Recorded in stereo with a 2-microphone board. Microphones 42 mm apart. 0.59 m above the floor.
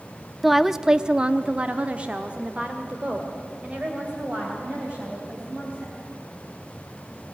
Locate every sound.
0.4 s a woman speaking: centre (ahead or behind), 0.7 m; by 6.0 s 25° right (ahead or behind), 4 m